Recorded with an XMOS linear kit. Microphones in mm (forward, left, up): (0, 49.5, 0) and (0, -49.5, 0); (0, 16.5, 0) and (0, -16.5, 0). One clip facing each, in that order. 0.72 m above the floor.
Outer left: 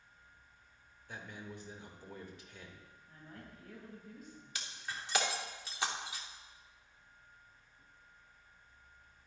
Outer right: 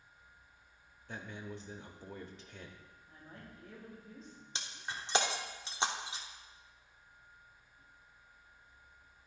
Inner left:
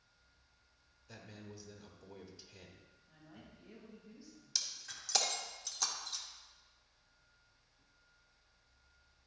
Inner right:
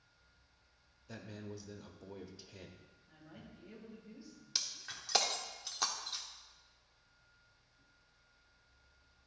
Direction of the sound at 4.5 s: 25° right (ahead or behind).